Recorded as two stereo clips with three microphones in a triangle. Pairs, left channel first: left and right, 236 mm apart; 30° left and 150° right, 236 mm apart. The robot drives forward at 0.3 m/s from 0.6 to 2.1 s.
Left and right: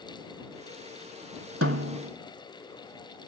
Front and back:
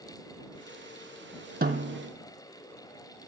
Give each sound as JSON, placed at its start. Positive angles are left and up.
{"t": 1.6, "sound": "a snare drum", "azimuth_deg": -100, "distance_m": 0.8}